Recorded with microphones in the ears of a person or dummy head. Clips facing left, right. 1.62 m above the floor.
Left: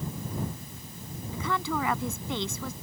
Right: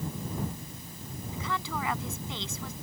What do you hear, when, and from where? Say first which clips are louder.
1.3 s a woman speaking: left 5 dB; 55° left (ahead or behind)